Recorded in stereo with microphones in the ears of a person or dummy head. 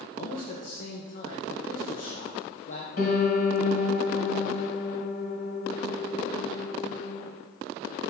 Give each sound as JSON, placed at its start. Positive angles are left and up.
{"t": 0.1, "sound": "a man speaking", "side_deg": 50, "distance_m": 1.2}
{"t": 3.0, "sound": "a piano", "side_deg": 50, "distance_m": 2.0}